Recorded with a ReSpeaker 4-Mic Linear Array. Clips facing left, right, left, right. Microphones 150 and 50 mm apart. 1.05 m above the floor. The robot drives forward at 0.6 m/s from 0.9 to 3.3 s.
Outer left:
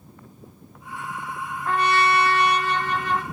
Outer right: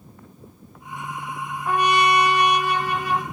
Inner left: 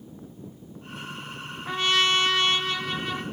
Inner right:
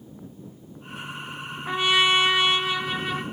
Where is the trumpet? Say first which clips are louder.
Outer right 2 dB, inner right 2 dB; 15° right (ahead or behind), 0.7 m; by 3.2 s 10° right (ahead or behind), 0.9 m.